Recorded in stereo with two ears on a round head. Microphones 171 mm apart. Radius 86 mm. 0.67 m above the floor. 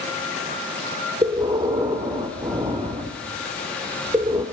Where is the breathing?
20° right (ahead or behind), 1.9 m.